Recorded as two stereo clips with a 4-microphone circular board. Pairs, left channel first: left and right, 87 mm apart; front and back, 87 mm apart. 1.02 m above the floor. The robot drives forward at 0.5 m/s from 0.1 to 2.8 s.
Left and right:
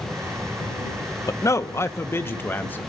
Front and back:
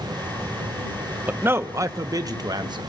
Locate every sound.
1.3 s a man speaking: 120° left, 0.8 m; by 2.9 s 155° left, 1.3 m